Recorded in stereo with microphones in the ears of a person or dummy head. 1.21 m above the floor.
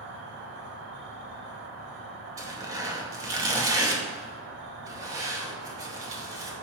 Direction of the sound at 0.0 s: 65° right (ahead or behind).